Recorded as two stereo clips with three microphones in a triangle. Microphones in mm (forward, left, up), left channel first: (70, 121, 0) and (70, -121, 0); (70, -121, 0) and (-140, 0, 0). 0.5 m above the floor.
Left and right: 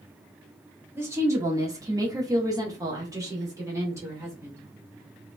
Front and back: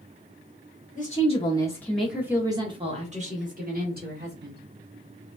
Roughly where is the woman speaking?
Ahead.